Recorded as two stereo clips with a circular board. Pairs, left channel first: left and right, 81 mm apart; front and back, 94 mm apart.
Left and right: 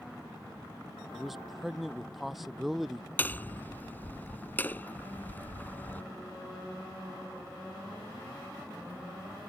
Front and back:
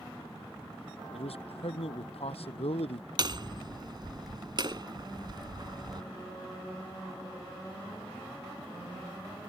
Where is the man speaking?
Straight ahead.